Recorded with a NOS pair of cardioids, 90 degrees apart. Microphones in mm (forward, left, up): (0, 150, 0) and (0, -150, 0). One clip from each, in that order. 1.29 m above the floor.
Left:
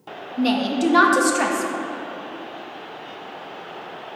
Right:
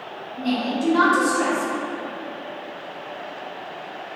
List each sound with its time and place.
0.4 s a woman speaking: 50° left, 0.6 m